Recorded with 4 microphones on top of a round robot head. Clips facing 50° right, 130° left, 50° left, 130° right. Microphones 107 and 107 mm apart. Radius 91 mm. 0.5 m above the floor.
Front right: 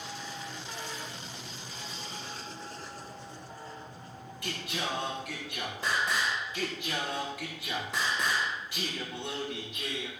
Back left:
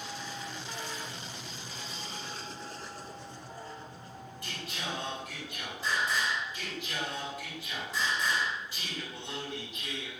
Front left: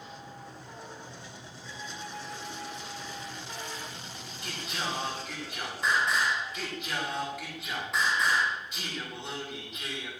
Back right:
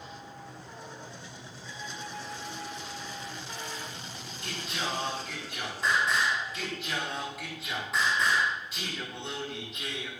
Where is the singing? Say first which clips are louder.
Front right 5 dB, even; 40° right, 9.5 m.